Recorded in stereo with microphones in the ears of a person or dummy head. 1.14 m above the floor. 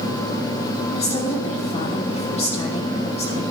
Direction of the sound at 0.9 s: 35° left (ahead or behind).